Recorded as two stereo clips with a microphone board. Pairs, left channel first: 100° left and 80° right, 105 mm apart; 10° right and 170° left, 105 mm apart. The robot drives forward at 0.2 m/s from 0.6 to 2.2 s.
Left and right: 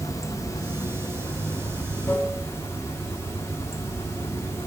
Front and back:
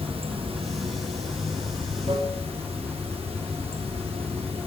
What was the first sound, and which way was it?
Running water, 155° left.